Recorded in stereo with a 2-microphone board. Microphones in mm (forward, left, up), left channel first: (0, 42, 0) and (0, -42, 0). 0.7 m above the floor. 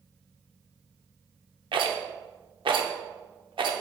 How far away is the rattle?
About 0.7 m.